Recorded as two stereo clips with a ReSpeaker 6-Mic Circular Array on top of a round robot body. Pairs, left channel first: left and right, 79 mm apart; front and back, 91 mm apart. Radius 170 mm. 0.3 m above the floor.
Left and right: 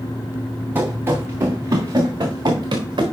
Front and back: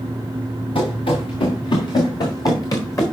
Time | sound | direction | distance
0.8 | running footsteps | 25° right | 2 m